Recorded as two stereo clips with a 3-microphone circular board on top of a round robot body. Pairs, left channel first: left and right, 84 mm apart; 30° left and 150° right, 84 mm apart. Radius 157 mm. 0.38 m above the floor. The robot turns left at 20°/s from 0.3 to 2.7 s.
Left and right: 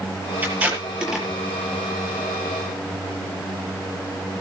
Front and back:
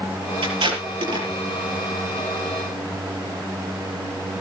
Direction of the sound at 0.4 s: 160° right.